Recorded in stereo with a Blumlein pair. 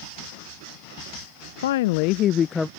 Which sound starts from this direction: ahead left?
A woman speaking, at 1.6 s.